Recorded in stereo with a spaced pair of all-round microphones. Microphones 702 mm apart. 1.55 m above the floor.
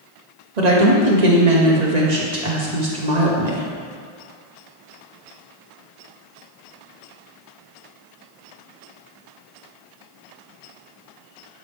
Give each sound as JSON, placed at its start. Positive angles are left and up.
{"t": 0.6, "sound": "a woman speaking", "side_deg": -80, "distance_m": 1.3}